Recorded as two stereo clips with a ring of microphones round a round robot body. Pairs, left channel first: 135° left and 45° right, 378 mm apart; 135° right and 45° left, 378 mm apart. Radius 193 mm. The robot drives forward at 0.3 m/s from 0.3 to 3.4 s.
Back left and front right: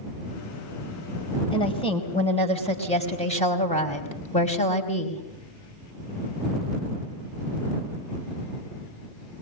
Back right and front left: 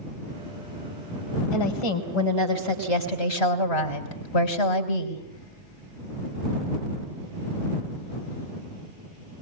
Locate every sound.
1.5 s a woman speaking: 150° right, 4 m